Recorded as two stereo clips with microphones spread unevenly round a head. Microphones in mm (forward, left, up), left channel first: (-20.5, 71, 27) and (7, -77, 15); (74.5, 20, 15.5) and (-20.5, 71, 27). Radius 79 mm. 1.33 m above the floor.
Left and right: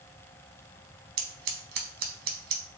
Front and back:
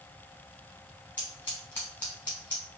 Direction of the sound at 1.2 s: 110° right.